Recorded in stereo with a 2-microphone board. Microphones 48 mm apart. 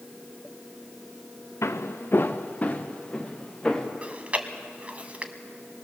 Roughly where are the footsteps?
Left.